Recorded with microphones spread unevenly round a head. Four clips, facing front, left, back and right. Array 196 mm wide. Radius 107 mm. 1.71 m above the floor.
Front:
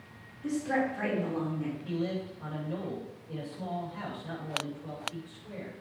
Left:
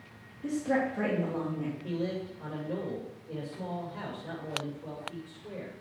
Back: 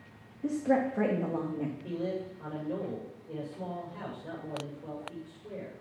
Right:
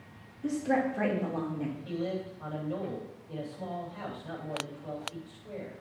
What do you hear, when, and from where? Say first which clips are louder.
0.4 s a woman speaking: right 1 dB, back 2 dB; straight behind, 3 m
1.8 s a man speaking: left 1 dB, front 1 dB; 145° left, 7 m